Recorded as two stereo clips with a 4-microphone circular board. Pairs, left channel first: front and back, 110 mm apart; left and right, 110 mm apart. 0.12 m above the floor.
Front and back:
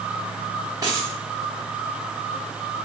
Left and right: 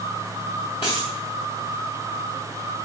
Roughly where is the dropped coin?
Behind left.